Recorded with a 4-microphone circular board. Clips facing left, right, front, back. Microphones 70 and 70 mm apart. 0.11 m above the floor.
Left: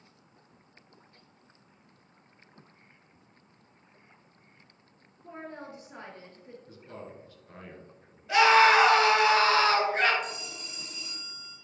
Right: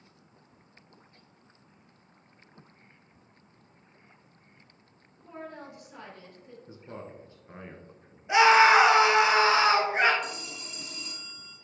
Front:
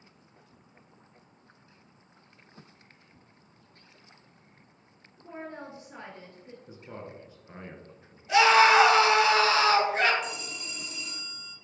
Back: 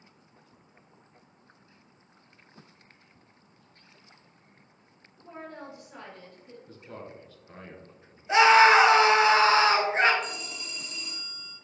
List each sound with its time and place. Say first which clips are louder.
5.2 s a woman speaking: even, front 1 dB; 50° left, 2 m
6.7 s a man speaking: right 3 dB, even; 55° right, 1.3 m
8.3 s a scream: right 1 dB, back 2 dB; 150° right, 1.3 m
10.2 s a phone ringing: right 1 dB, even; 85° right, 1.7 m